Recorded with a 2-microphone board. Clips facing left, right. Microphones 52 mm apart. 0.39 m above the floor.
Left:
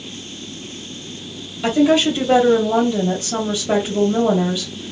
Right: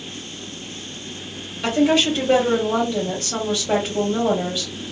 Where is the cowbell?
I don't hear a cowbell.